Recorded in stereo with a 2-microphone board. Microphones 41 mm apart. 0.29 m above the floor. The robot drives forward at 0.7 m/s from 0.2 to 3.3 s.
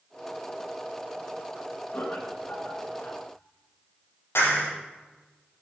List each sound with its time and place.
1.9 s laughter: 60° left (ahead or behind), 4 m; by 3.2 s 50° left (ahead or behind), 4.5 m
4.3 s a clap: 80° left, 6 m